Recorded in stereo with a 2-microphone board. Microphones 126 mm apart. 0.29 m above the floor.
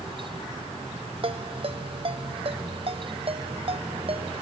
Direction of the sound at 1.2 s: 50° right (ahead or behind).